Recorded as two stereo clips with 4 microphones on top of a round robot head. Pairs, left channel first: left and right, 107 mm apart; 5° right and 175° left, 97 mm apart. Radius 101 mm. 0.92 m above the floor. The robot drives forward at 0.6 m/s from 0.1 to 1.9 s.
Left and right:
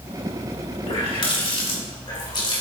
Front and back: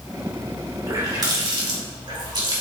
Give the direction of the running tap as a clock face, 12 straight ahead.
8 o'clock.